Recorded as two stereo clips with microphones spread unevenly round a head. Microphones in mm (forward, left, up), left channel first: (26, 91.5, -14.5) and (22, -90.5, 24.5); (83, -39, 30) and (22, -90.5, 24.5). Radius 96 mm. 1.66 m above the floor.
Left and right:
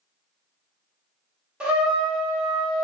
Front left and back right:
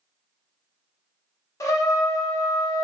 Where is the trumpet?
10° right, 0.8 m.